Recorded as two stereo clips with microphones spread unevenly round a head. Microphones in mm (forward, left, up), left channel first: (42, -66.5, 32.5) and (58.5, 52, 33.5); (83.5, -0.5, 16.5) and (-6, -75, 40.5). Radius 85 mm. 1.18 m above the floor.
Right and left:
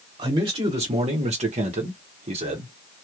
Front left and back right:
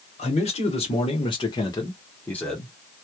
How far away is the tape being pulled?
I don't hear tape being pulled.